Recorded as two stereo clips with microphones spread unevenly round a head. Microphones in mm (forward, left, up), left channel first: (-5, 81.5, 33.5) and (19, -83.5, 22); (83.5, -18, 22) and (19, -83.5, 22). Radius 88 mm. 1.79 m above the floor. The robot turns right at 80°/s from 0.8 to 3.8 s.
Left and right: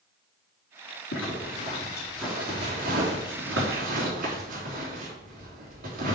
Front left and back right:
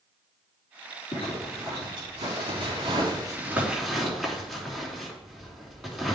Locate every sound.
1.1 s a zipper: 100° left, 4 m; by 6.2 s 45° right, 4 m